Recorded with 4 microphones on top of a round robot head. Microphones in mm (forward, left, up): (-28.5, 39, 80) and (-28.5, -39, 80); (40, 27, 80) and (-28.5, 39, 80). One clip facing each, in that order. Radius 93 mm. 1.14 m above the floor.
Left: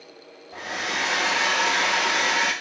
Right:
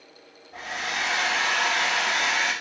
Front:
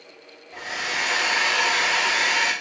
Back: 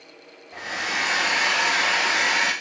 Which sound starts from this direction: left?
A hair dryer, at 0.5 s.